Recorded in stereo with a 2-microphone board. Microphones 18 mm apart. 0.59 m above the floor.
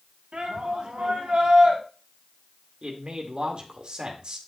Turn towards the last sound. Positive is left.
turn(degrees=-55)  # may be behind; listen again after turning